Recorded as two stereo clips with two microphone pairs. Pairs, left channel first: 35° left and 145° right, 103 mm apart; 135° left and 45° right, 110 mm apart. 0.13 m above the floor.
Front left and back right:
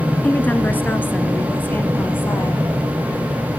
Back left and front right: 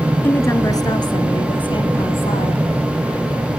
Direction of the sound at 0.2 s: 90° left.